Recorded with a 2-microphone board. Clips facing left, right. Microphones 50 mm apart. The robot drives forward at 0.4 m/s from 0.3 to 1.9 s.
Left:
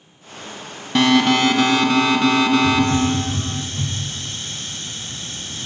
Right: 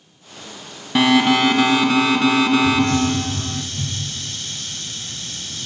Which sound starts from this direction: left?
A hiss, at 2.6 s.